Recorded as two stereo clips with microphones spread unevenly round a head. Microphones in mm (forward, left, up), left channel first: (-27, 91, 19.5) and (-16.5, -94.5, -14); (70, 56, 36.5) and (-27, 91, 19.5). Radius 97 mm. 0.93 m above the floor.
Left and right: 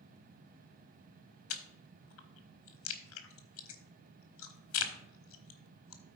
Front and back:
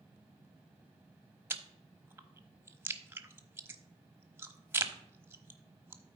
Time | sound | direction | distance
1.5 | chewing | 90° left | 1.1 m